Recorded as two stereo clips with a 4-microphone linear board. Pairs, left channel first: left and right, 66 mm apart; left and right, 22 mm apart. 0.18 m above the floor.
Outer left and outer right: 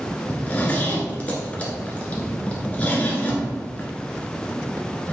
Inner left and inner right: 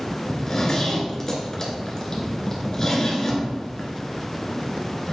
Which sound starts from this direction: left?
A zipper, at 0.3 s.